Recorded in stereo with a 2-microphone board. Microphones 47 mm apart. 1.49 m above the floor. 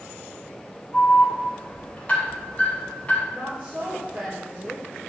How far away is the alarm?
About 3.5 m.